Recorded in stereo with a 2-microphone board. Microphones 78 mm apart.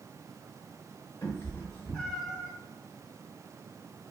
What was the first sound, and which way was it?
A cat meowing, 35° left (ahead or behind).